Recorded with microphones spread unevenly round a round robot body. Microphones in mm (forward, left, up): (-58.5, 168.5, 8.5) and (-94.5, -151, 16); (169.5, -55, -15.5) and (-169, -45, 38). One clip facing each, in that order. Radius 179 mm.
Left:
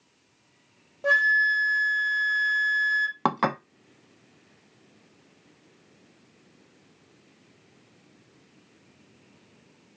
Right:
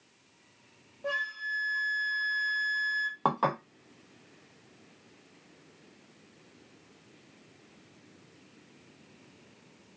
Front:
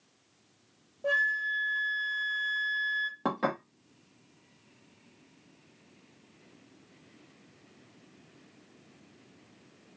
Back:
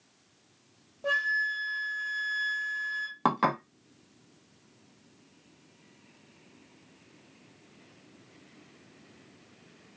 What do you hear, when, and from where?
1.0 s a flute: 110° left, 0.8 m
3.2 s dishes clattering: 105° left, 0.5 m